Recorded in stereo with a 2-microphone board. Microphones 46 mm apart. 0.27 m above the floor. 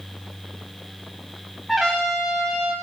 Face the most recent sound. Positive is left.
turn(degrees=0)  # may be behind; listen again after turning